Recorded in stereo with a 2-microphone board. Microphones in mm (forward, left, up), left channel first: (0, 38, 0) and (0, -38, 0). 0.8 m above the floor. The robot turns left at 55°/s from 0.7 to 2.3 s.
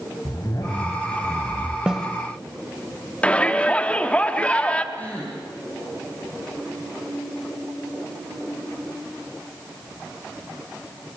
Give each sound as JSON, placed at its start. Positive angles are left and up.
{"t": 0.2, "sound": "a zipper", "azimuth_deg": 50, "distance_m": 3.0}
{"t": 1.9, "sound": "a snare drum", "side_deg": -10, "distance_m": 1.9}
{"t": 3.2, "sound": "a shout", "side_deg": 15, "distance_m": 2.0}
{"t": 4.9, "sound": "a gasp", "side_deg": 20, "distance_m": 8.0}